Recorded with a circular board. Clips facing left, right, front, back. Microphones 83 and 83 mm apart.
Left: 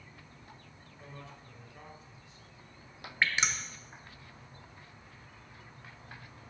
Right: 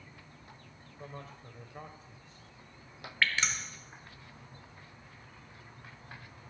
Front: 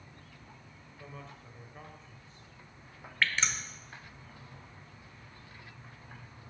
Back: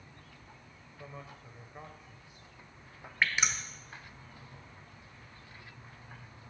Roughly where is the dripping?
Behind left.